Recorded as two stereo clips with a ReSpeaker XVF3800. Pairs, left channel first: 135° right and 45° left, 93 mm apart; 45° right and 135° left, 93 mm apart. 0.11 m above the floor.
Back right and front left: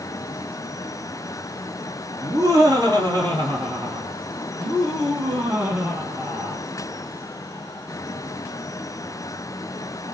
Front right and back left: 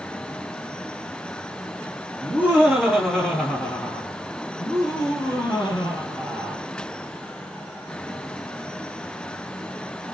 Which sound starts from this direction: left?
Laughter, at 2.2 s.